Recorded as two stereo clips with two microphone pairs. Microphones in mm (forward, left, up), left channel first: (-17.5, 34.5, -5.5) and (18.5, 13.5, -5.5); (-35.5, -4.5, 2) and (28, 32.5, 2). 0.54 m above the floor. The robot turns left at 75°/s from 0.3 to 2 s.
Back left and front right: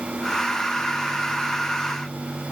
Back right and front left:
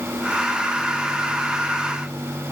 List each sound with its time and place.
Only background noise.